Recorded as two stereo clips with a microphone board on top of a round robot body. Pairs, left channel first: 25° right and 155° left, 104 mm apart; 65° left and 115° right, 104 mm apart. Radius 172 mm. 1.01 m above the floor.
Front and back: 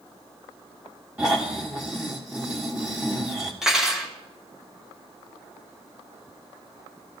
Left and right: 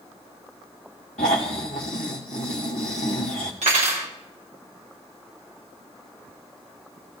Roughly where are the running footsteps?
No running footsteps in this recording.